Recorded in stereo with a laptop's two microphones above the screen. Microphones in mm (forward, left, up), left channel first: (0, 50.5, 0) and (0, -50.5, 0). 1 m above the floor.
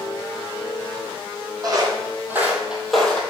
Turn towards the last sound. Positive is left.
turn(degrees=10)  # may be behind; listen again after turning